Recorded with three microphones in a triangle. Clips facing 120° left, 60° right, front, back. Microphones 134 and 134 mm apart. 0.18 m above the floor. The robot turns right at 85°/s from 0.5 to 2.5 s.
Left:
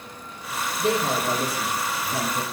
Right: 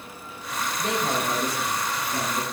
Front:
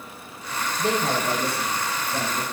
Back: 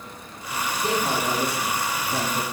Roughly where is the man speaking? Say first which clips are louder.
Left 4 dB, front 1 dB; ahead left.